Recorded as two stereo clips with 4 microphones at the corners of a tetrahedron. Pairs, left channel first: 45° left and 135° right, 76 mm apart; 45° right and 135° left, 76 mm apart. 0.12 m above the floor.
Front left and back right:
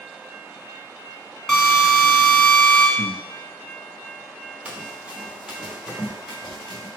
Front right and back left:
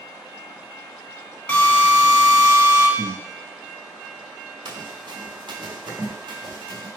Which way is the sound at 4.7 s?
155° left.